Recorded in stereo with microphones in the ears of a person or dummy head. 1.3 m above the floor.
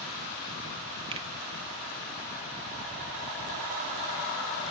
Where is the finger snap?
25° right (ahead or behind), 1.2 m.